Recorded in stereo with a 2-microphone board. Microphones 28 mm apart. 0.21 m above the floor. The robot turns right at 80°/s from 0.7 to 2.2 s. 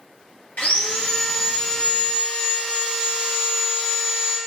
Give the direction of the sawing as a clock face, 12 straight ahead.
8 o'clock.